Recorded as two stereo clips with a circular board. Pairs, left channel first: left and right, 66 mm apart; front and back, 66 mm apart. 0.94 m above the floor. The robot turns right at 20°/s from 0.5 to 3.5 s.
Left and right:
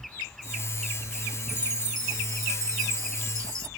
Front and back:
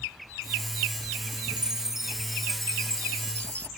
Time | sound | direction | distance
1.5 | a chime | 105° right | ?